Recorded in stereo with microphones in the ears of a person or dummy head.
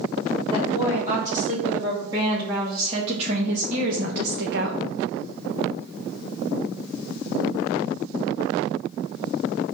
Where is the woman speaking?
15° right (ahead or behind), 4 m; by 4.8 s 65° right (ahead or behind), 1.5 m.